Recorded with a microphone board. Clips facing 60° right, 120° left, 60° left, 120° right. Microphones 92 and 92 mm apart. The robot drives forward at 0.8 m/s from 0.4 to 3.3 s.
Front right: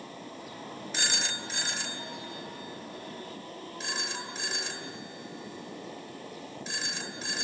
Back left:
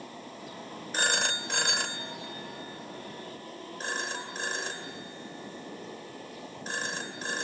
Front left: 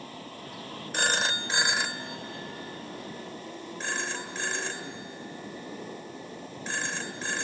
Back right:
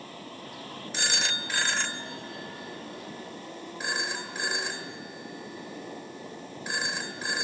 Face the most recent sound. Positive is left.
turn(degrees=165)